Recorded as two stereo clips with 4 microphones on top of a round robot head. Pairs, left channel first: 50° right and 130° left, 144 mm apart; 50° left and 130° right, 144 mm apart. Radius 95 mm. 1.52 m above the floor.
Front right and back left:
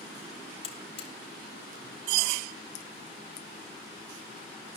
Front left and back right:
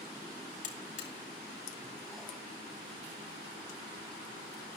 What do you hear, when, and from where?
0.6 s a buzzer: 10° left, 2.5 m